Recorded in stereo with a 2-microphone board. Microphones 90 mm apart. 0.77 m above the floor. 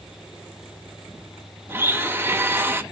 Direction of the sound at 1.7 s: 25° right (ahead or behind).